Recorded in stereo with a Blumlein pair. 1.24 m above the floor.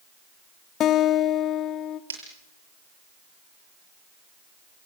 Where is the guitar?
30° left, 0.8 m.